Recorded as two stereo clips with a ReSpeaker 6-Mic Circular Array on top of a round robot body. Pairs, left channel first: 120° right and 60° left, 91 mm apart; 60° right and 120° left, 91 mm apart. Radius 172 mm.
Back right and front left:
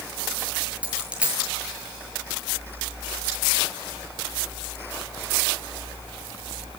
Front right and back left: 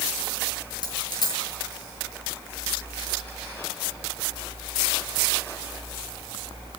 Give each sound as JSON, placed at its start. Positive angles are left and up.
{"t": 0.8, "sound": "a dropped coin", "azimuth_deg": -20, "distance_m": 7.5}